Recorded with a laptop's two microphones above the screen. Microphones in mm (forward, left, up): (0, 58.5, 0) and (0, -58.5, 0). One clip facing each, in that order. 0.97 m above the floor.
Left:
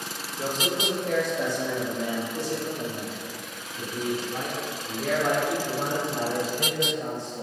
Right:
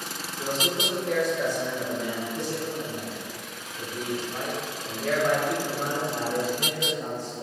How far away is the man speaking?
About 1.4 m.